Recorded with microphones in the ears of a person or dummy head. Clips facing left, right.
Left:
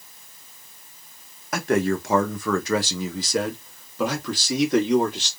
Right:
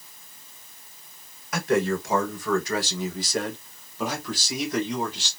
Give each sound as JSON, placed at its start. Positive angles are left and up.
{"t": 1.5, "sound": "a man speaking", "side_deg": 50, "distance_m": 1.4}